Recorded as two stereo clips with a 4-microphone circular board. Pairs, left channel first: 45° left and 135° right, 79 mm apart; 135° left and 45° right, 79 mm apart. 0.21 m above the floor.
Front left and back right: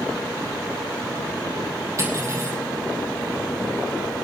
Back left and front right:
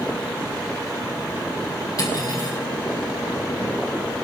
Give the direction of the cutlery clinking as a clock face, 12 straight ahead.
6 o'clock.